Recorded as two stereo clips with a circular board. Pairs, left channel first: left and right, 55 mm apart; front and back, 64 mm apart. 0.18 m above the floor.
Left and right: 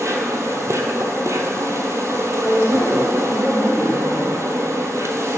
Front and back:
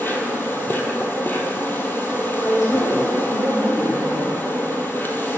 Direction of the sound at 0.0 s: 60° right.